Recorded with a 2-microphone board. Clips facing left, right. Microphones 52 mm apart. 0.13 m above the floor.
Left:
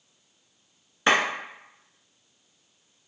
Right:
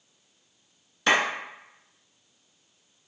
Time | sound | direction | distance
1.1 | a clap | 25° left (ahead or behind) | 1.2 m